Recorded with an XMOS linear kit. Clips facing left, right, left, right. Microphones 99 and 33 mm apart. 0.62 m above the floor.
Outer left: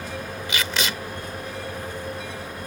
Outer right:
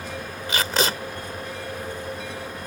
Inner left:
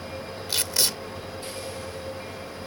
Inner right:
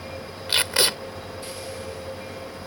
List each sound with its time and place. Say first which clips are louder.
0.5 s tape being pulled: outer right 4 dB, inner right 6 dB; 40° right (ahead or behind)